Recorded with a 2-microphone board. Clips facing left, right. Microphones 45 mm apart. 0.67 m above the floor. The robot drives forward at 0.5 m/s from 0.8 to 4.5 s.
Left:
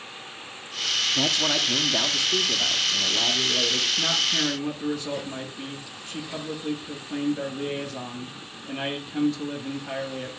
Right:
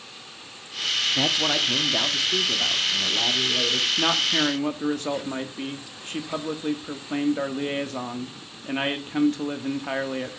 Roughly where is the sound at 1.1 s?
Centre.